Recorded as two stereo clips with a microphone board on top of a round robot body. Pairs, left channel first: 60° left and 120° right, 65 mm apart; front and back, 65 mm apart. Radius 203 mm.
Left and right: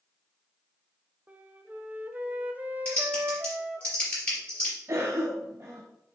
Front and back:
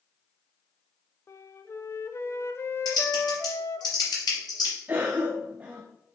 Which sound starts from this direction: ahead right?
A flute, at 1.3 s.